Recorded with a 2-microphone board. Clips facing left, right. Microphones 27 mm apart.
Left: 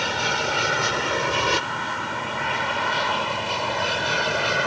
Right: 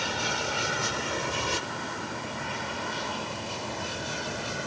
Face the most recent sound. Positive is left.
turn(degrees=40)  # may be behind; listen again after turning